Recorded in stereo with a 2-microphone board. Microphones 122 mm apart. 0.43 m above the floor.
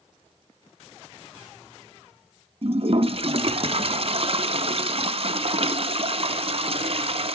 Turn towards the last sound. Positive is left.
turn(degrees=-55)  # may be behind; listen again after turning